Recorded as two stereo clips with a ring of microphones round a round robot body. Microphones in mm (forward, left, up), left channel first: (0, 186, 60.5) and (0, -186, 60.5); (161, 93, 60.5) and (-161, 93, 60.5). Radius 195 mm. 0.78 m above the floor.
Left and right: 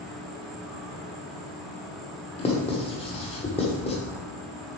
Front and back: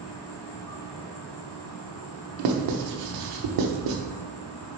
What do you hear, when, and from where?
0.0 s an insect: straight ahead, 1.4 m
2.4 s writing: 165° left, 1.1 m